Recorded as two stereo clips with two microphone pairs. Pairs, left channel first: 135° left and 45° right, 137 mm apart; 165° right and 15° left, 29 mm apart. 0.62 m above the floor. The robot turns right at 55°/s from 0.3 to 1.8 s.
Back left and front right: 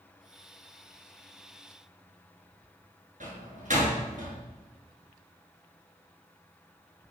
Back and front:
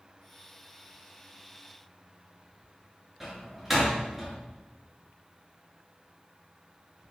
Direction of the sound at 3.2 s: 65° right.